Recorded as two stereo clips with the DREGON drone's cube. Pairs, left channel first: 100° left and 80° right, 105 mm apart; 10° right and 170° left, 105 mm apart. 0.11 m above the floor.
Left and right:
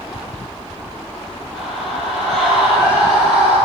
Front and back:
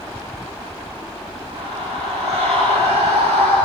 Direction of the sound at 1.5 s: 175° right.